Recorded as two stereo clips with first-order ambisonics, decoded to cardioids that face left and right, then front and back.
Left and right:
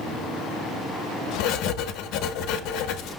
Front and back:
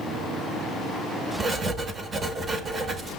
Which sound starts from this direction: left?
Writing, at 1.4 s.